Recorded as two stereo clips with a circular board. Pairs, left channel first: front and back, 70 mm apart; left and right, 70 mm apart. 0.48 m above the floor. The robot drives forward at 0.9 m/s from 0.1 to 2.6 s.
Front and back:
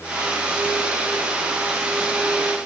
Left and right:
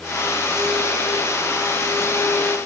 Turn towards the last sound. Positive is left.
No sound to turn to.